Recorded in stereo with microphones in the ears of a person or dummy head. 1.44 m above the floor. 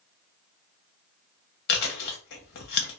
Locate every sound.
1.7 s chewing: 50° left (ahead or behind), 0.9 m